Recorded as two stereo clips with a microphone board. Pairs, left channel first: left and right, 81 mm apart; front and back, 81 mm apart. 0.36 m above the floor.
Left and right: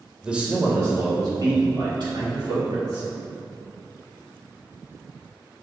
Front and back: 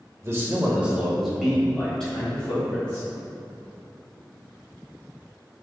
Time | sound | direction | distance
0.2 | a man speaking | 165° right | 1.0 m